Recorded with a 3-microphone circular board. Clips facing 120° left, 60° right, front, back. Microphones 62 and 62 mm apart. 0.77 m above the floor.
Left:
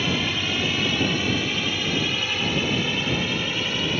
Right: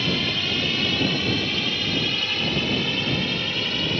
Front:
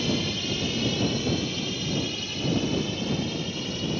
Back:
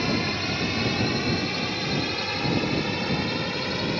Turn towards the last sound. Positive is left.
turn(degrees=-155)